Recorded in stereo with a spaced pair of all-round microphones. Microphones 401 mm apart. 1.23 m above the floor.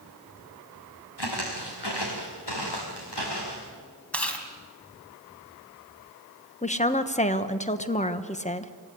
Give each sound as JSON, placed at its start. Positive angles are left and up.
{"t": 1.2, "sound": "footsteps", "side_deg": 75, "distance_m": 4.0}
{"t": 4.1, "sound": "chewing", "side_deg": 5, "distance_m": 2.5}
{"t": 6.6, "sound": "a woman speaking", "side_deg": 15, "distance_m": 1.1}